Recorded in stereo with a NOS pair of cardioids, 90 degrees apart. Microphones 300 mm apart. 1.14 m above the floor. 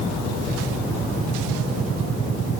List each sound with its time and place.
Only background noise.